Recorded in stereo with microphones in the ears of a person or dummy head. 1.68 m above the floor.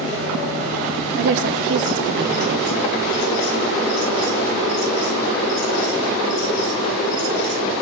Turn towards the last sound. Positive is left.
turn(degrees=-45)  # may be behind; listen again after turning